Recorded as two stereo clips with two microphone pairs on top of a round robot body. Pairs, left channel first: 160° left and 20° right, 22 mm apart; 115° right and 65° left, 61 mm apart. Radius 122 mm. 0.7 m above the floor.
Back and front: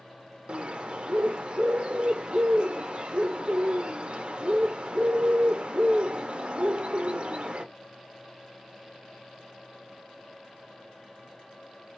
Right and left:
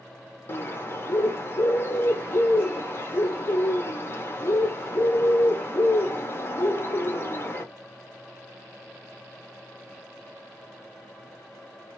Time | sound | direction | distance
0.5 | a bird | 60° right | 0.6 m